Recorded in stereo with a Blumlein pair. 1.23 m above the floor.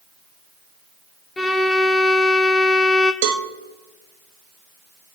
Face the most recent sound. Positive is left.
turn(degrees=-45)